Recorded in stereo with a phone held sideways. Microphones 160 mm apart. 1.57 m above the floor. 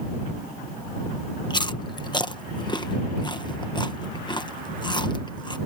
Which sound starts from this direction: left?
Chewing, at 1.5 s.